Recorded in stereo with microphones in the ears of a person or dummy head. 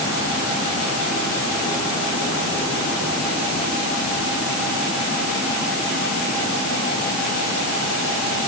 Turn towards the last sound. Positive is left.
No sound to turn to.